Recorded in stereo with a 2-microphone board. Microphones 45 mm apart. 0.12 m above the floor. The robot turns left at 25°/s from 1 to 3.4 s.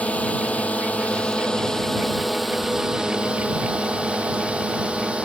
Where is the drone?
30° left (ahead or behind); by 5.3 s 25° right (ahead or behind).